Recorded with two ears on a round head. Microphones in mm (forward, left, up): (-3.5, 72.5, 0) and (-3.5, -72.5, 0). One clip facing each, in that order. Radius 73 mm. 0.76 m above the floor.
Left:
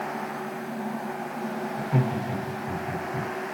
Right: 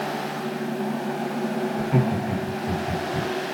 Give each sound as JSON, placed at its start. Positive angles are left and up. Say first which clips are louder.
{"t": 1.8, "sound": "laughter", "louder": "right 2 dB", "side_deg": -35, "distance_m": 2.0}